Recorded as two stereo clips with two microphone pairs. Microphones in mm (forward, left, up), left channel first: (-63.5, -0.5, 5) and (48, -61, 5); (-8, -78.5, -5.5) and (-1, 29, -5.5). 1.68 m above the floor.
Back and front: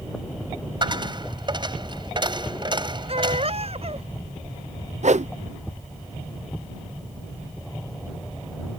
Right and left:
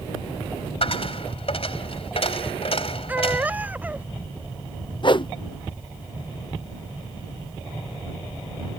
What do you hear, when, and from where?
0.8 s a dropped coin: 75° right
3.1 s a baby crying: 10° left
5.0 s a whoosh: 55° right